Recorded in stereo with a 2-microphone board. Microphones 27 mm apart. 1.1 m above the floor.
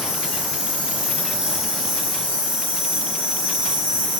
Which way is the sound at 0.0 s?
40° right (ahead or behind).